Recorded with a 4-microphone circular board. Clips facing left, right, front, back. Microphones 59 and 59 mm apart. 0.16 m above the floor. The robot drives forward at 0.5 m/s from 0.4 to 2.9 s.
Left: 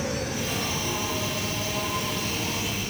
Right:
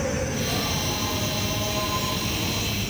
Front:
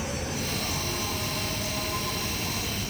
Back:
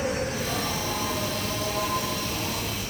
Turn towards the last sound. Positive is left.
turn(degrees=-165)